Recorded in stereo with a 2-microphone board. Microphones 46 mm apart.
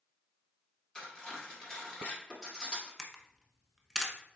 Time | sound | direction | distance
0.9 | cutlery clinking | 15° left (ahead or behind) | 1.6 m
3.0 | a camera shutter | 5° left (ahead or behind) | 0.8 m